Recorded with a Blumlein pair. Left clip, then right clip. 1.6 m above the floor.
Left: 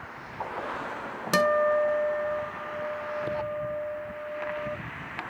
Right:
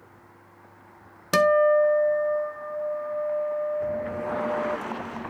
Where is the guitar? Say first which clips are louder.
Right 4 dB; 5° right, 0.7 m.